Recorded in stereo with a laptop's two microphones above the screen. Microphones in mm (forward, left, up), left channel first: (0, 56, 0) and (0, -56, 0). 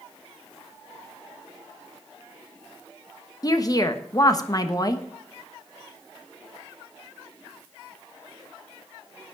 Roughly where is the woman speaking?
Left.